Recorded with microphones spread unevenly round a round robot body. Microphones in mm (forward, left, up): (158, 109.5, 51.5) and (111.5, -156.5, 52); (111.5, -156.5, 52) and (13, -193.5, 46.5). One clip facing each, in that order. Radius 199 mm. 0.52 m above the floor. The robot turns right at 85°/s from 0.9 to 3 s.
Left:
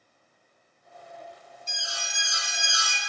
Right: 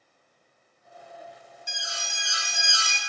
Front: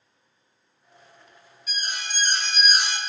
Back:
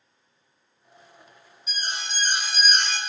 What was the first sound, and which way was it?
An alarm, 160° right.